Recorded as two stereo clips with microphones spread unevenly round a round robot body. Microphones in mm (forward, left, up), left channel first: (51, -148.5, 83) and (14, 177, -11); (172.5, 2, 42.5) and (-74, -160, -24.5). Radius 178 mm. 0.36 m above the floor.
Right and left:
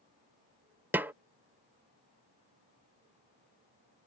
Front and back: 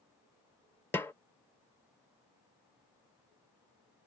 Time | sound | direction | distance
0.9 | a snare drum | 135° left | ?